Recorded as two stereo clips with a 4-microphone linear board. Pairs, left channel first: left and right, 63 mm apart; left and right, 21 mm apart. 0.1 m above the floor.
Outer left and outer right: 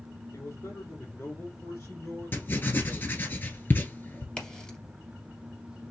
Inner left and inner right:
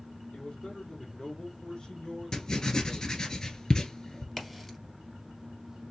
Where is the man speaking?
55° left (ahead or behind), 3 m; by 3.3 s 25° left (ahead or behind), 1.7 m.